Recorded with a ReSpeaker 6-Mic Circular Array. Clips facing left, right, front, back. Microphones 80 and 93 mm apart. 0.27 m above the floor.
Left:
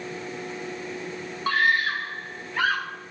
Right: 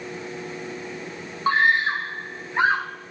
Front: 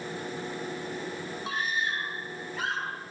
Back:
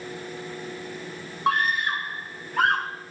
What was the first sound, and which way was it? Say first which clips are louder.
A scream: right 3 dB, back 9 dB; 155° right.